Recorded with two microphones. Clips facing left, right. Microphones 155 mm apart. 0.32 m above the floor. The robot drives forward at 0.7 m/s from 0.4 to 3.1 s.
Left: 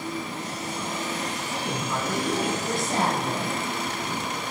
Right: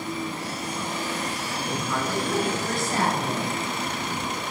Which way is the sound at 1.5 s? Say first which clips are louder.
Right 1 dB; 25° left (ahead or behind).